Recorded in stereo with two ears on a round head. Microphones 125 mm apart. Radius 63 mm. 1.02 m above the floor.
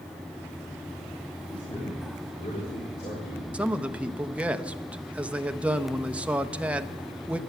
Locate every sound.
1.5 s a man speaking: 35° left (ahead or behind), 4 m; by 3.4 s 60° left (ahead or behind), 4 m
3.5 s a man speaking: 10° right (ahead or behind), 0.8 m